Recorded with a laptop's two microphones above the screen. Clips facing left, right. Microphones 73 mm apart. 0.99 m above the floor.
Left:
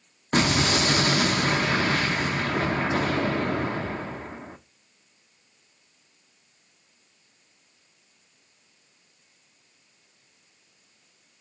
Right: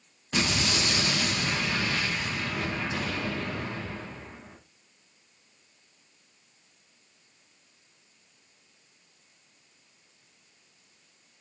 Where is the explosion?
50° left (ahead or behind), 1.0 m.